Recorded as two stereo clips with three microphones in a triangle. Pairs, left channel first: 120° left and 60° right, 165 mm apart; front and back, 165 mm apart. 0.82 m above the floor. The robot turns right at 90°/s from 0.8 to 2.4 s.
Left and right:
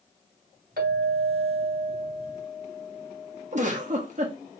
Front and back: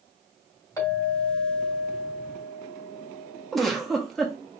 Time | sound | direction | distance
0.8 | a clink | 70° right | 2.5 m
3.5 | a giggle | 90° right | 1.1 m